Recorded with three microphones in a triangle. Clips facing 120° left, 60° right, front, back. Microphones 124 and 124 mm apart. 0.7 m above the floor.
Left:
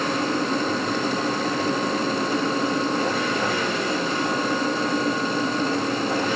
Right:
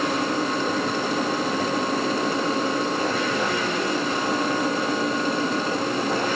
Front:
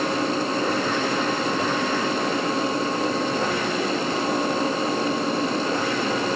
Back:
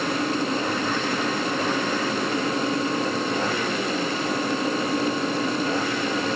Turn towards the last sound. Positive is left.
No sound to turn to.